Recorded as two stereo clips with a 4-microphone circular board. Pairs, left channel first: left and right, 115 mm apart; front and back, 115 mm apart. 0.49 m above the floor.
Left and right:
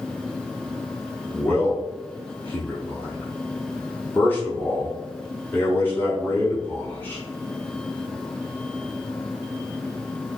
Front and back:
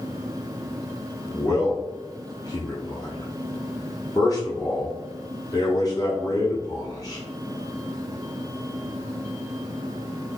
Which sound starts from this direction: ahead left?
A man speaking, at 1.3 s.